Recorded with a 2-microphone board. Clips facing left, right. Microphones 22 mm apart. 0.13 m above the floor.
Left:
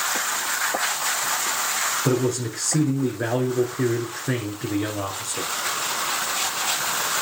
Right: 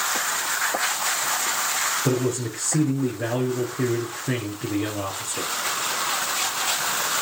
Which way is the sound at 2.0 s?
50° left (ahead or behind).